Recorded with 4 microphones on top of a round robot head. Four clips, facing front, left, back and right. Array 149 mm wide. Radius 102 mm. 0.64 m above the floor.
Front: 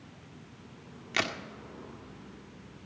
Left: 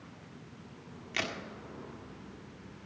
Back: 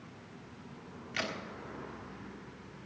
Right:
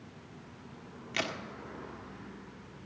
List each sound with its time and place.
1.1 s a crack: 5° right, 1.5 m